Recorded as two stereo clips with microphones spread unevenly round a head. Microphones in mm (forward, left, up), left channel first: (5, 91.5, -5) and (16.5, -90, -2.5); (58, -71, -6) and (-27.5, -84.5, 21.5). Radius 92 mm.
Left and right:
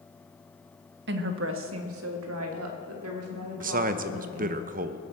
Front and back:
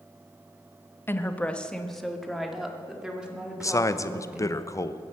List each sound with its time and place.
1.1 s a woman speaking: 55° right, 1.2 m; by 4.6 s 95° right, 4.5 m
3.6 s a man speaking: 40° right, 0.9 m